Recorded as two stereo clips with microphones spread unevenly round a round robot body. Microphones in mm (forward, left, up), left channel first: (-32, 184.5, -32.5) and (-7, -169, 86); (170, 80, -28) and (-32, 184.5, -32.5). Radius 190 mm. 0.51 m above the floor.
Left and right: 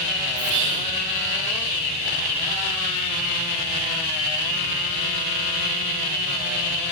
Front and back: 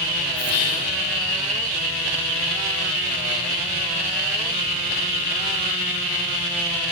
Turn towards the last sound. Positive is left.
turn(degrees=-35)